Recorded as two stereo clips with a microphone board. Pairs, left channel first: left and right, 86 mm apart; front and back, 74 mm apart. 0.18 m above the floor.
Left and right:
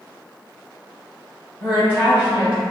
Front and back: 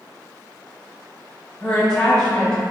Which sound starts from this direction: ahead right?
A woman speaking, at 1.6 s.